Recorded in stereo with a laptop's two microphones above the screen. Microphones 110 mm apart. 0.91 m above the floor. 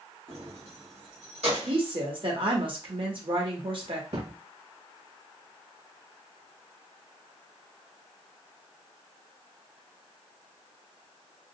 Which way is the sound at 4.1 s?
60° right (ahead or behind).